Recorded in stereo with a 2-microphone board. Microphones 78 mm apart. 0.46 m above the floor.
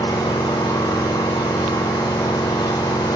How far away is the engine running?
About 10 m.